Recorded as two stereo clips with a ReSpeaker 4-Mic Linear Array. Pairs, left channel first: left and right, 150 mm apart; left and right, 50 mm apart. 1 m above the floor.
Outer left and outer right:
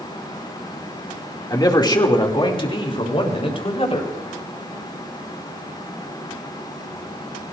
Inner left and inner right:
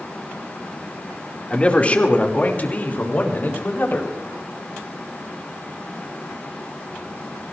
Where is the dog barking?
I don't hear a dog barking.